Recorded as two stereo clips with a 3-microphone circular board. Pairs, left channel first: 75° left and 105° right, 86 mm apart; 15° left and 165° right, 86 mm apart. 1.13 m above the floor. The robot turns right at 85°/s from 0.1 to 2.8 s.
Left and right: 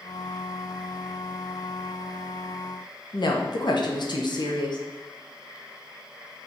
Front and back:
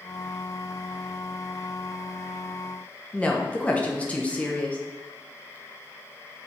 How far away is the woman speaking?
About 0.7 m.